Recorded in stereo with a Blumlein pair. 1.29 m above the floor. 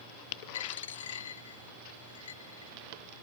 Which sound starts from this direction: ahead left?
A dropped coin, at 0.5 s.